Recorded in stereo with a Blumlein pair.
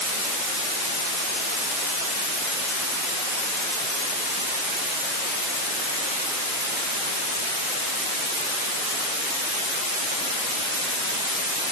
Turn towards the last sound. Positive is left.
No sound to turn to.